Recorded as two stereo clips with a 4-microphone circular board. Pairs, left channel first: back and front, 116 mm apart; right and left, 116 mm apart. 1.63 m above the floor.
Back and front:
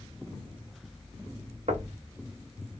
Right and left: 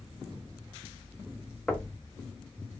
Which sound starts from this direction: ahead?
Knocking, at 1.7 s.